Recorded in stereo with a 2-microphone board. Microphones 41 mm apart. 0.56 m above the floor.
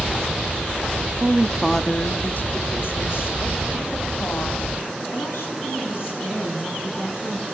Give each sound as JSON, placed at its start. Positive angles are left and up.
{"t": 1.2, "sound": "a woman speaking", "side_deg": -40, "distance_m": 0.7}